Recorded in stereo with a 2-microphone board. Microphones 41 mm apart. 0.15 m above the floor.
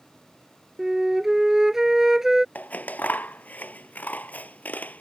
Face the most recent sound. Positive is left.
turn(degrees=45)  # may be behind; listen again after turning